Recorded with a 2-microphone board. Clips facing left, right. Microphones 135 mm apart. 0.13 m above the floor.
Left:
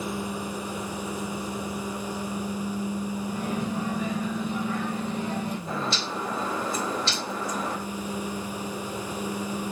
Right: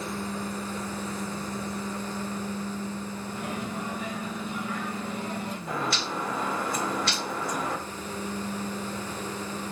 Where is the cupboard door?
I don't hear a cupboard door.